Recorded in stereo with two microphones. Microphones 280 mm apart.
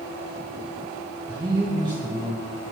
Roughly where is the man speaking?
Centre.